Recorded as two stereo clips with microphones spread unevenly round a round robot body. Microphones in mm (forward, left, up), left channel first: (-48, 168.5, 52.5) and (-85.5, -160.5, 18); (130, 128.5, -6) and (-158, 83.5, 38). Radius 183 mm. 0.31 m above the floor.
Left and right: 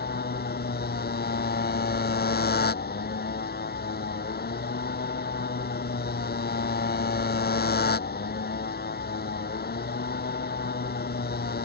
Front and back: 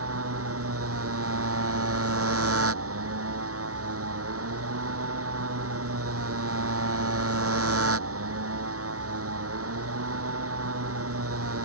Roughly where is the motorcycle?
Behind left.